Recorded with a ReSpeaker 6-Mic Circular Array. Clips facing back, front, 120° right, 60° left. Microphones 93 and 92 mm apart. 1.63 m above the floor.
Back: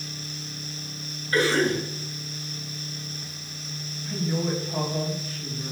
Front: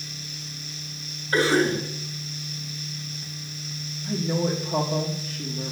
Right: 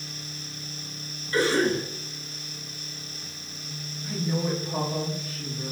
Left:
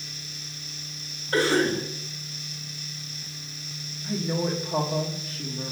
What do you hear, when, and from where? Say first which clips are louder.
1.3 s a cough: front 1 dB, even; 50° left, 1.6 m
4.0 s a woman speaking: front 2 dB, left 1 dB; 5° right, 1.0 m